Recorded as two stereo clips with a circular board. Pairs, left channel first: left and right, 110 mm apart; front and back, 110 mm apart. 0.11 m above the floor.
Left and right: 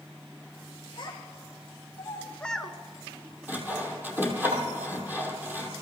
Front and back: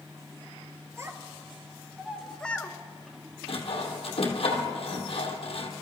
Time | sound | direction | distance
1.0 | a child speaking | 120° left | 1.3 m
3.5 | sawing | 20° right | 2 m